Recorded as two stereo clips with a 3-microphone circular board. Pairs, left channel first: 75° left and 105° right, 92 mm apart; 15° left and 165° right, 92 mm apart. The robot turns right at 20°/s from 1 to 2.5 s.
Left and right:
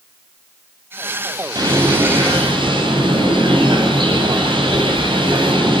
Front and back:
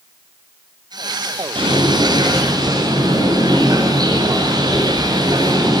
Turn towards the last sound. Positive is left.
turn(degrees=-125)